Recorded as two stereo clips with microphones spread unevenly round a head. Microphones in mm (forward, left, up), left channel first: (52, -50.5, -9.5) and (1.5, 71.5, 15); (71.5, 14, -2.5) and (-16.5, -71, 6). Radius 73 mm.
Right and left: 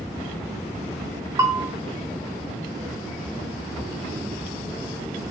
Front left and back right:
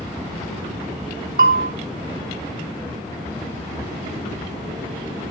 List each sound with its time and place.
1.4 s a bell: 175° right, 2.5 m